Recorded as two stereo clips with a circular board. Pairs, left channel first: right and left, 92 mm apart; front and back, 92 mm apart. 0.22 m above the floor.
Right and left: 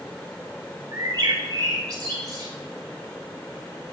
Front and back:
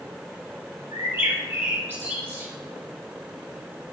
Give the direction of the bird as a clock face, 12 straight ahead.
8 o'clock.